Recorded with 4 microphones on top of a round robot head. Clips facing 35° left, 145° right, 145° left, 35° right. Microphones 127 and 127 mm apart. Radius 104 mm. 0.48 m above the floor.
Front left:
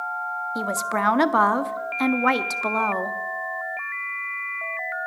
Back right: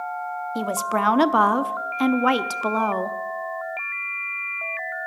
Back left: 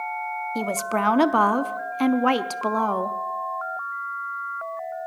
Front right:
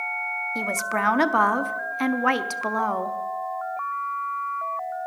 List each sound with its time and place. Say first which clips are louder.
0.6 s a woman speaking: back right 2 dB, back left 2 dB; 160° left, 0.7 m